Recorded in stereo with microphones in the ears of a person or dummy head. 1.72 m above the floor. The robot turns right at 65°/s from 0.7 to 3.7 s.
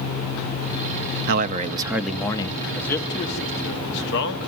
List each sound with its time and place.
1.3 s a man speaking: 50° right, 0.7 m; by 2.6 s 35° left, 0.7 m
2.7 s a man speaking: 5° left, 1.4 m; by 4.5 s 65° left, 1.4 m